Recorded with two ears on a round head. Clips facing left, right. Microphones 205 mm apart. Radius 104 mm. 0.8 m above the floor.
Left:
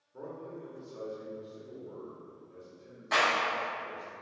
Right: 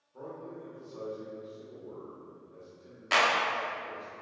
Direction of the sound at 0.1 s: 25° left (ahead or behind).